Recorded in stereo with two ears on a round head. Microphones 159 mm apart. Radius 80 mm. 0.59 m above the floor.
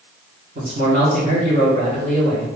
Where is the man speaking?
50° right (ahead or behind), 1.7 m.